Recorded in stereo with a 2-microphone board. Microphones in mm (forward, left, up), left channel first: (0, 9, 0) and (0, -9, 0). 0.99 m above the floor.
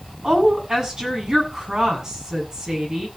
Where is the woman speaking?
35° right (ahead or behind), 7 m.